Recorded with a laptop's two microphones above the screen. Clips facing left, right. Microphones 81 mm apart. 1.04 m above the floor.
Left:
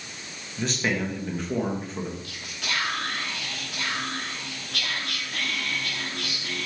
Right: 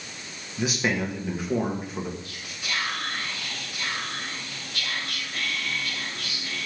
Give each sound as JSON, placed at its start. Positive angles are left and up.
{"t": 0.6, "sound": "a man speaking", "side_deg": -10, "distance_m": 1.5}
{"t": 2.2, "sound": "whispering", "side_deg": 75, "distance_m": 2.5}